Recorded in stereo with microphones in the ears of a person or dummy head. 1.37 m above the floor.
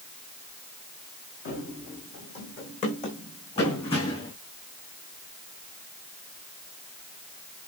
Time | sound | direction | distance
1.4 | running footsteps | 65° left (ahead or behind) | 4 m